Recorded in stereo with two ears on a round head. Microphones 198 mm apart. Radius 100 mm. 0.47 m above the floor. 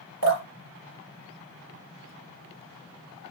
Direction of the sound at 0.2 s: 70° right (ahead or behind).